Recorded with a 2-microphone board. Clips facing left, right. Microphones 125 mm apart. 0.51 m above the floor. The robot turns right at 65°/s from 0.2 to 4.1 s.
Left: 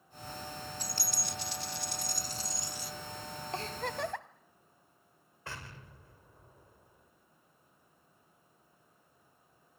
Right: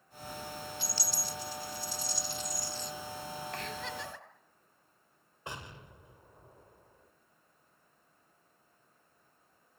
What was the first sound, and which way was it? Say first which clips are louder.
A dropped coin: right 1 dB; 40° left.